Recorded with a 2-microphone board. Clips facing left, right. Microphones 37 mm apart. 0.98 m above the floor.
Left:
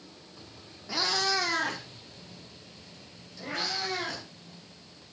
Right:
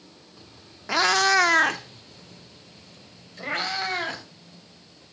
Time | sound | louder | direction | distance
0.9 | a cat meowing | right 9 dB | 70° right (ahead or behind) | 1.1 m